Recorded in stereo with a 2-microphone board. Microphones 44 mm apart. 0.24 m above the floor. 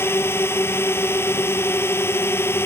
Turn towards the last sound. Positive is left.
turn(degrees=60)  # may be behind; listen again after turning